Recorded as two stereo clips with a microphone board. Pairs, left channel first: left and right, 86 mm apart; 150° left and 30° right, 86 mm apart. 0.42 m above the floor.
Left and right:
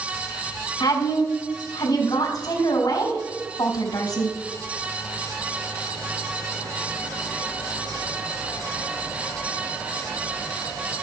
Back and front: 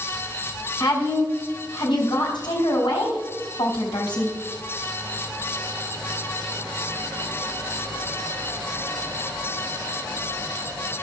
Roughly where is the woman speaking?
Behind left.